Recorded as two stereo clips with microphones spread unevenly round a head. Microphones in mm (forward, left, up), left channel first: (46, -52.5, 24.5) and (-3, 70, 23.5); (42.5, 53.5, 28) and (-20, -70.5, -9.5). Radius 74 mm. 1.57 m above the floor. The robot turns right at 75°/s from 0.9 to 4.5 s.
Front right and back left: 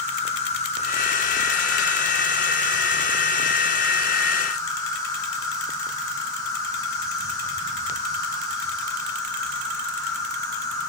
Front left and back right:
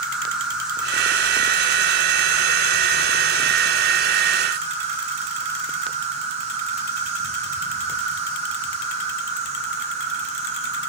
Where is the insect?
40° right, 1.8 m; by 10.9 s 130° right, 1.8 m.